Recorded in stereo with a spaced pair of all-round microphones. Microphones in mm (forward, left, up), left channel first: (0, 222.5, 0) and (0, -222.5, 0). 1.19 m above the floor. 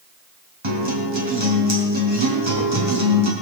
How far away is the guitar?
About 4 m.